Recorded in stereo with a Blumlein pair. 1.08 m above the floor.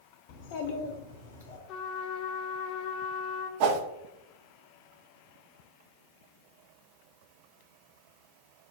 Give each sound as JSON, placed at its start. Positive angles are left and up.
{"t": 0.3, "sound": "a child speaking", "azimuth_deg": 45, "distance_m": 0.8}
{"t": 1.7, "sound": "a trumpet", "azimuth_deg": 35, "distance_m": 0.5}
{"t": 3.6, "sound": "a whoosh", "azimuth_deg": -50, "distance_m": 0.5}